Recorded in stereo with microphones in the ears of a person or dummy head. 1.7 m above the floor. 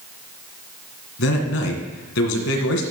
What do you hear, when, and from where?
1.2 s a man speaking: 85° left, 2 m